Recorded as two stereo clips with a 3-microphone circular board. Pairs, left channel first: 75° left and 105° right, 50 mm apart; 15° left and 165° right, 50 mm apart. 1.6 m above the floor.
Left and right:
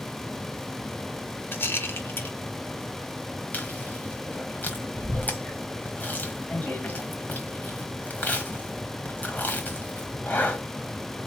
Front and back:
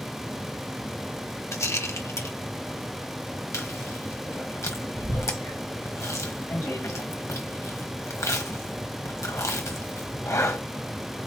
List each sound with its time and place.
1.5 s a rattle: 35° left, 1.0 m
3.5 s chewing: 20° left, 1.2 m